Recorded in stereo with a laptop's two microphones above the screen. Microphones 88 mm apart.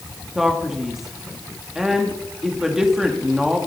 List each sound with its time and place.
0.3 s a man speaking: 5° right (ahead or behind), 1.3 m